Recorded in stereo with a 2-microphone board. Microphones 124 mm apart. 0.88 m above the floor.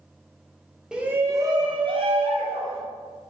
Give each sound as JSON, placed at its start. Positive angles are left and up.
{"t": 0.9, "sound": "a shout", "side_deg": -5, "distance_m": 0.6}